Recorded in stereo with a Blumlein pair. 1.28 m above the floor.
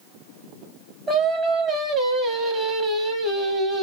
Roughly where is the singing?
Ahead.